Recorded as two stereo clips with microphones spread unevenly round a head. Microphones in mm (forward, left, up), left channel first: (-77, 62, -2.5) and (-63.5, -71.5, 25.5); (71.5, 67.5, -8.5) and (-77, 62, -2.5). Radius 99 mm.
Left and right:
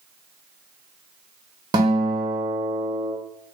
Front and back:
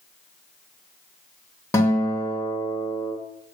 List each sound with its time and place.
1.7 s a guitar: 65° right, 0.7 m